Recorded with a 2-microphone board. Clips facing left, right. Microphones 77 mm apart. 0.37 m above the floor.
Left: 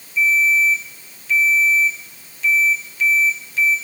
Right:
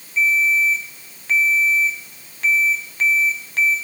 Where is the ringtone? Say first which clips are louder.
Left 1 dB; 55° right (ahead or behind), 1.7 m.